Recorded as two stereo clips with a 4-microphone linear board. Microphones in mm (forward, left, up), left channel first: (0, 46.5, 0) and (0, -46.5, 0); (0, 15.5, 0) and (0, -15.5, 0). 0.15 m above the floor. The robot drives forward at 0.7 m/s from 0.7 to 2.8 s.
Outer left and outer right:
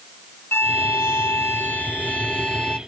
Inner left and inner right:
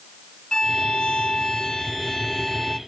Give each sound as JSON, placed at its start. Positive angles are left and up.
{"t": 0.5, "sound": "a violin", "side_deg": 25}